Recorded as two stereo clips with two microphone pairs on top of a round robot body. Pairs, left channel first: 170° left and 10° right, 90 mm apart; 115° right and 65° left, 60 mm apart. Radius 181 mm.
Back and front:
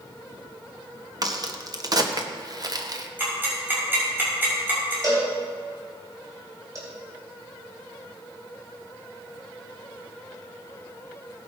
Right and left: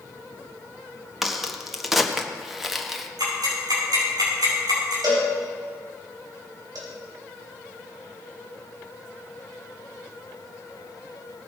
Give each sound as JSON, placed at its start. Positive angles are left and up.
{"t": 1.2, "sound": "a crack", "azimuth_deg": -30, "distance_m": 1.4}
{"t": 3.2, "sound": "ticking", "azimuth_deg": 60, "distance_m": 5.5}
{"t": 5.0, "sound": "a cowbell", "azimuth_deg": 45, "distance_m": 4.0}